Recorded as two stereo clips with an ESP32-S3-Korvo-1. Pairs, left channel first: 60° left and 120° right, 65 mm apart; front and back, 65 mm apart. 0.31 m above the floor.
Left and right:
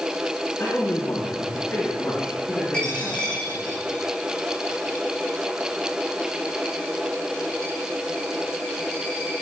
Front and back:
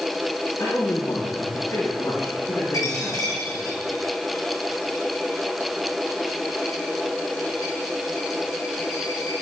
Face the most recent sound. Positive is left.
turn(degrees=-15)